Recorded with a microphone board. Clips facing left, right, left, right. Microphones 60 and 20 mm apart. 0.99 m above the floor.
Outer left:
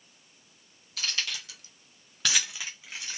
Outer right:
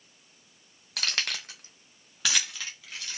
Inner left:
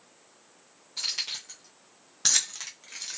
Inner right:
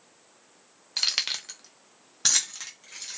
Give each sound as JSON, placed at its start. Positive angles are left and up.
{"t": 1.0, "sound": "keys jangling", "side_deg": -70, "distance_m": 0.7}